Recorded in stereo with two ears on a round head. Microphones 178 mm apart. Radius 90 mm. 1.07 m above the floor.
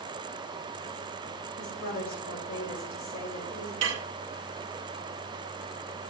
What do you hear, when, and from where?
1.6 s a woman speaking: 75° left (ahead or behind), 3 m
3.8 s dishes clattering: 65° right (ahead or behind), 0.8 m